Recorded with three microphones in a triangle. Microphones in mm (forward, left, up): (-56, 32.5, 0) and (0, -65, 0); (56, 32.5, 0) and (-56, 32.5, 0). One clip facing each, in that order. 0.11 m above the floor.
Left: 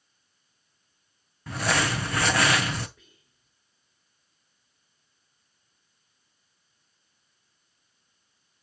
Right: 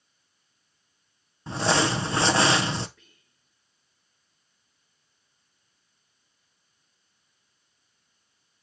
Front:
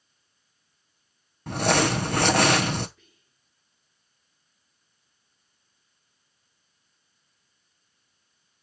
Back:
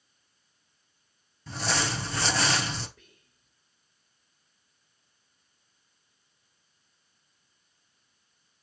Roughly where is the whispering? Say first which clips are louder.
Left 2 dB, back 2 dB; behind.